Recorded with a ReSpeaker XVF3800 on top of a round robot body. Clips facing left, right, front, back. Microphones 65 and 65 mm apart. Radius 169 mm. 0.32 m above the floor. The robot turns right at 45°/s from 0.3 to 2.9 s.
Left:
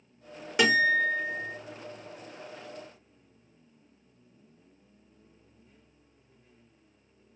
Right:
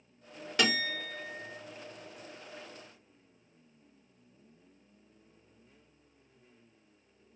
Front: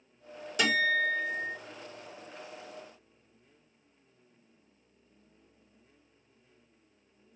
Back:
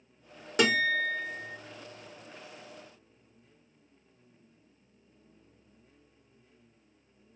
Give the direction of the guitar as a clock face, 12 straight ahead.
7 o'clock.